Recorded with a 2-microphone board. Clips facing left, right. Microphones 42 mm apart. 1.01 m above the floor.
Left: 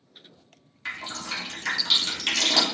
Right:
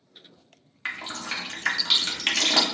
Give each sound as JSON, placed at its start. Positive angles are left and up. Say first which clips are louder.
{"t": 0.8, "sound": "dripping", "louder": "right 1 dB", "side_deg": -35, "distance_m": 0.6}